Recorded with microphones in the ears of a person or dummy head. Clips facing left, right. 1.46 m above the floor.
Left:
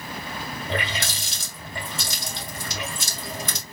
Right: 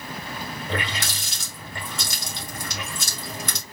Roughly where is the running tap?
Right.